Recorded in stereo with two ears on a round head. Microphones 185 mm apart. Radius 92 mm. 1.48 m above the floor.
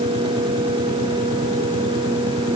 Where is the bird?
No bird in this recording.